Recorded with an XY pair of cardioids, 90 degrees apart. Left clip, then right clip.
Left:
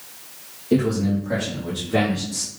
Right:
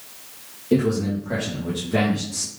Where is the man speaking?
5° right, 1.3 m; by 2.5 s 10° left, 2.5 m.